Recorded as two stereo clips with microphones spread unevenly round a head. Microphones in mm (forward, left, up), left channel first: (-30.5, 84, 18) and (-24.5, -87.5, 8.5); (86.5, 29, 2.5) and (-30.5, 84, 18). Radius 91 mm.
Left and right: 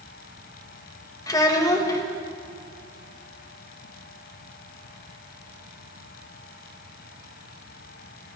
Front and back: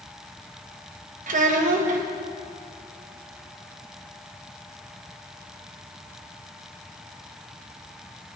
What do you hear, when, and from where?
1.3 s a child speaking: 160° left, 1.5 m